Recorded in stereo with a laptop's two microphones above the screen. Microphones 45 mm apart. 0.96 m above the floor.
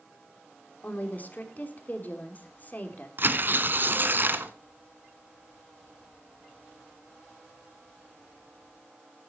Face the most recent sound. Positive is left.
turn(degrees=-45)  # may be behind; listen again after turning